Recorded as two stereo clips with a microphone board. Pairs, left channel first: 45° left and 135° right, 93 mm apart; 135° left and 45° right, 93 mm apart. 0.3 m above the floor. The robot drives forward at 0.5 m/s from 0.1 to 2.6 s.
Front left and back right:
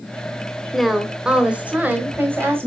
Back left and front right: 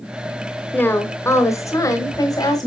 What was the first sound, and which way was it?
A woman speaking, 125° left.